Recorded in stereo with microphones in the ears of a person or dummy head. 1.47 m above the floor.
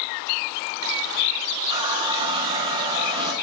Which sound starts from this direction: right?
A running tap, at 1.7 s.